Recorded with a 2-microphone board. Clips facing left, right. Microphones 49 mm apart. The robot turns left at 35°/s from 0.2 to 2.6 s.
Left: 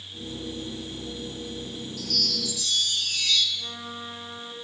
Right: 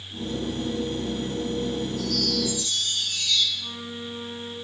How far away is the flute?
About 4 m.